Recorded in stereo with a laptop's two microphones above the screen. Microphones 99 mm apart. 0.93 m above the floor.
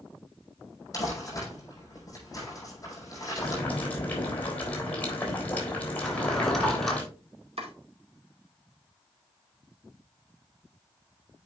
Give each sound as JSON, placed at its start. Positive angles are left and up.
{"t": 0.9, "sound": "crumpling", "side_deg": 35, "distance_m": 5.5}
{"t": 3.4, "sound": "boiling", "side_deg": 15, "distance_m": 3.5}
{"t": 6.0, "sound": "a drawer", "side_deg": 5, "distance_m": 2.5}
{"t": 7.6, "sound": "chopping", "side_deg": -80, "distance_m": 2.0}